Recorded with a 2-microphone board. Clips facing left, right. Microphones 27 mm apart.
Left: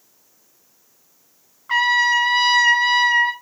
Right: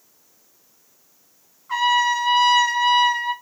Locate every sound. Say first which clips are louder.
1.7 s a trumpet: left 2 dB; 65° left (ahead or behind), 2.5 m